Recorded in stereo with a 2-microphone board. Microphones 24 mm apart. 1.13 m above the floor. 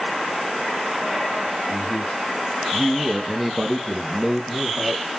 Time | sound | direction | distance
1.7 | a man speaking | 20° left (ahead or behind) | 1.1 m